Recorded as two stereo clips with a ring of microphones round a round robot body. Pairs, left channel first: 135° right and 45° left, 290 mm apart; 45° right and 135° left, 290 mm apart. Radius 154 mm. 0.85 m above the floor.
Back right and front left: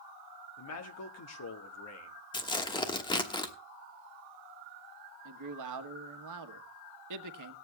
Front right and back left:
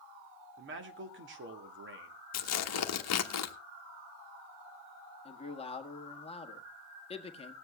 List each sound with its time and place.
0.6 s a man speaking: 175° right, 1.9 m
2.3 s tearing paper: 60° right, 1.2 m
5.2 s a man speaking: 25° left, 1.4 m